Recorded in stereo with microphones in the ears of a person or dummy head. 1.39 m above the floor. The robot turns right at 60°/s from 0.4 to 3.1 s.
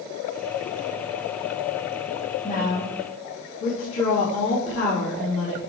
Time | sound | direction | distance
2.4 | a woman speaking | 35° left | 2.5 m